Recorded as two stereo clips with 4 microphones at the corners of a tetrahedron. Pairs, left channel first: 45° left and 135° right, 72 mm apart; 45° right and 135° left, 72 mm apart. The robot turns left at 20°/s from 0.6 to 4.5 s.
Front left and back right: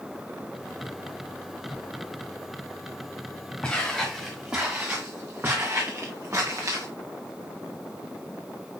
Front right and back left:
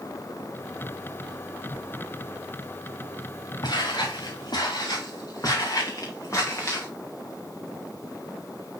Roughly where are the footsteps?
Ahead right.